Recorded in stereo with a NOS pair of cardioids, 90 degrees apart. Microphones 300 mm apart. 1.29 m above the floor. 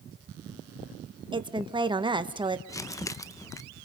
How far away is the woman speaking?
About 1.4 m.